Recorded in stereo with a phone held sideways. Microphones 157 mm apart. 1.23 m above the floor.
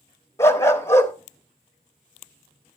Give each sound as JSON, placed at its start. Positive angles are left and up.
{"t": 0.4, "sound": "a dog barking", "side_deg": 15, "distance_m": 0.9}